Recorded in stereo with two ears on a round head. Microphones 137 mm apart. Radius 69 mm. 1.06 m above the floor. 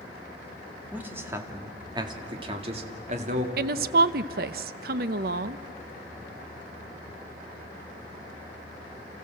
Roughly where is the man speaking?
Centre.